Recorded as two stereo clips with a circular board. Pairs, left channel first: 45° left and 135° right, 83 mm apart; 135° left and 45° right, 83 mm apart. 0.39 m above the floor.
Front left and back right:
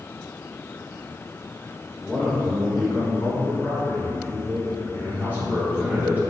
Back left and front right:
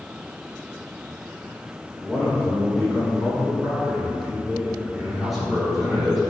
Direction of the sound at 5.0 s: 130° right.